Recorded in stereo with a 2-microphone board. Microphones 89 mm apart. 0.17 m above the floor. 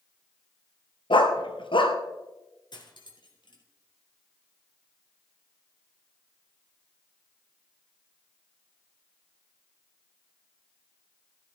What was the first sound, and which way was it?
A dog barking, 70° left (ahead or behind).